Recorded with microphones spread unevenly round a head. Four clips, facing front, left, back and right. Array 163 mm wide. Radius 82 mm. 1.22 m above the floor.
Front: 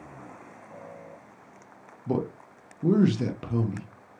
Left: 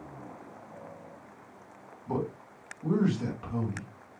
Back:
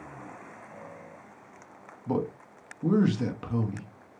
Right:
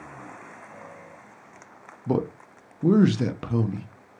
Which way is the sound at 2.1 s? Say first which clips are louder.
Right 7 dB, front 1 dB; 80° right.